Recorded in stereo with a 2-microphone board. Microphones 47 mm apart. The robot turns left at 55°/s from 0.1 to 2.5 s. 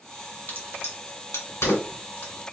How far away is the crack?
About 2.5 m.